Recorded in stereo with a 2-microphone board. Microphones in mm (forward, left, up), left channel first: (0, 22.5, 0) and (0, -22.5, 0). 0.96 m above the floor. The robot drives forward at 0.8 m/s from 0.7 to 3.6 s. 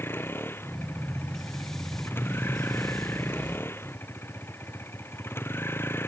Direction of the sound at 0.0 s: 55° left (ahead or behind).